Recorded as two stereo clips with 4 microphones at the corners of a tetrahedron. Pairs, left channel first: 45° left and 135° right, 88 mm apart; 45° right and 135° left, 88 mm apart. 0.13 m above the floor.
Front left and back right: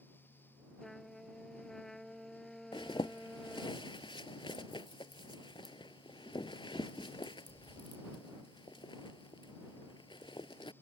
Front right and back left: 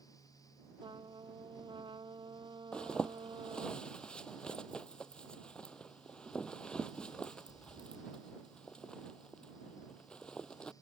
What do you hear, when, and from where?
0.8 s a trumpet: 130° left
2.7 s a zipper: 35° left